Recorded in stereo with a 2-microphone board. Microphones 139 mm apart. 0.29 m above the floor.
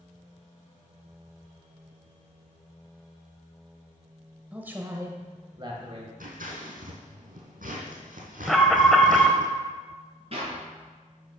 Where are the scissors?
90° right, 3 m.